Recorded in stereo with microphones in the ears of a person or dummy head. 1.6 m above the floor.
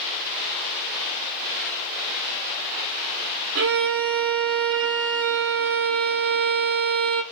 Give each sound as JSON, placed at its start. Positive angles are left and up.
{"t": 3.5, "sound": "a violin", "side_deg": -55, "distance_m": 0.6}